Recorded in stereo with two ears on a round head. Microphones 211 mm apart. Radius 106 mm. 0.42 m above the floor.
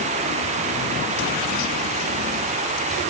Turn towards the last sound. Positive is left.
No sound to turn to.